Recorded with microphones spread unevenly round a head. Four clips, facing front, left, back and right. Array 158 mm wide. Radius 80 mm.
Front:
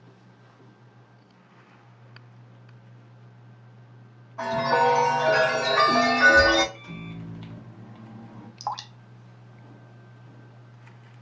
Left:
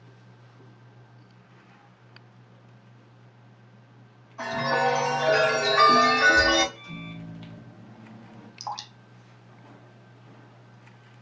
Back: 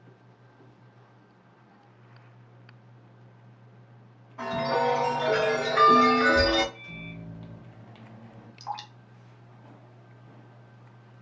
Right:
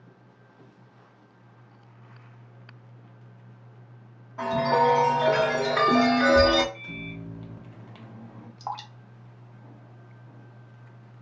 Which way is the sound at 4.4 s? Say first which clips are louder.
Right 3 dB, front 4 dB; 65° right.